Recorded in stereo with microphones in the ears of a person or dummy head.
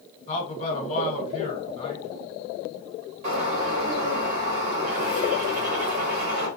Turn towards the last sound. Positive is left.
turn(degrees=-35)  # may be behind; listen again after turning